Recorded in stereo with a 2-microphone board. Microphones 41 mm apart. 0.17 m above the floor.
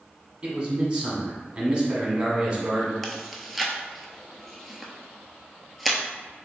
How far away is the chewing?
About 0.6 m.